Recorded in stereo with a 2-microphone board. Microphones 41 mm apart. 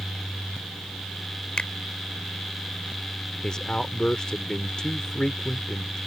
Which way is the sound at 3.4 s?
20° left (ahead or behind).